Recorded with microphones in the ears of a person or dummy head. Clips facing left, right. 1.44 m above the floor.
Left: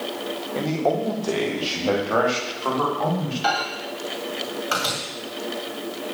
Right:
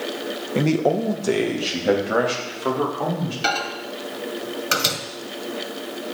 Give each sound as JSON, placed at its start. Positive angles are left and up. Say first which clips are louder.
{"t": 0.6, "sound": "a man speaking", "louder": "right 4 dB", "side_deg": -35, "distance_m": 1.3}
{"t": 3.4, "sound": "a microwave", "louder": "left 1 dB", "side_deg": -35, "distance_m": 1.8}